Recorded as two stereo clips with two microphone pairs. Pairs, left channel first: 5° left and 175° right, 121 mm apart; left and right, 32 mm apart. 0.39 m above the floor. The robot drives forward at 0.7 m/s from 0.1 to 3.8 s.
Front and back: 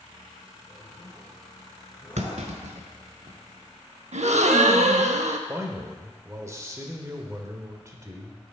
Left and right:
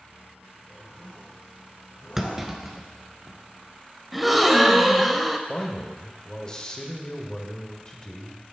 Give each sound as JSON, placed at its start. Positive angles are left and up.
{"t": 0.7, "sound": "a zipper", "azimuth_deg": 50, "distance_m": 2.5}
{"t": 2.2, "sound": "a clunk", "azimuth_deg": -170, "distance_m": 0.7}
{"t": 4.1, "sound": "a gasp", "azimuth_deg": 180, "distance_m": 0.5}
{"t": 5.5, "sound": "a man speaking", "azimuth_deg": 135, "distance_m": 1.0}